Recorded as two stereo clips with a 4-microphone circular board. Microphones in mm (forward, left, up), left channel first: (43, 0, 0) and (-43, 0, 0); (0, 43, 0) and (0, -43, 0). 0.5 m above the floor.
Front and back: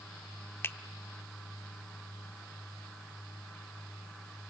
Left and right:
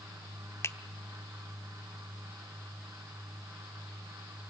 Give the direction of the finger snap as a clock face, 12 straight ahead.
10 o'clock.